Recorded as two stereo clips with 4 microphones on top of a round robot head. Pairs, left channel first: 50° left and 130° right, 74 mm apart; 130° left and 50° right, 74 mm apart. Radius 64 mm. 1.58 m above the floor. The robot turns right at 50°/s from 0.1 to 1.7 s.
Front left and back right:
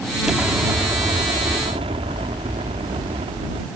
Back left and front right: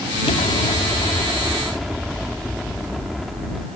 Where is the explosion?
145° left; by 3.7 s 140° right.